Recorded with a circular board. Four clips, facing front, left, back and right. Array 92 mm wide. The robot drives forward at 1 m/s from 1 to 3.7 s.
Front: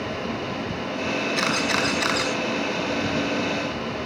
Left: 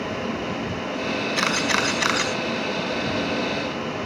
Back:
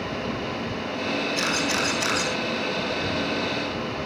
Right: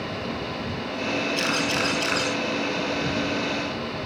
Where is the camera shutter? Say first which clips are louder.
Left 2 dB, front 2 dB; 60° left, 5 m; by 2.3 s 70° left, 4.5 m.